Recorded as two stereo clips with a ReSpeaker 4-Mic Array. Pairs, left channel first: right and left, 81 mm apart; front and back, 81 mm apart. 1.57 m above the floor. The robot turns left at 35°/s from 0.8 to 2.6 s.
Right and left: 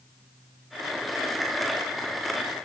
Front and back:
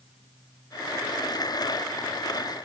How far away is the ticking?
I don't hear ticking.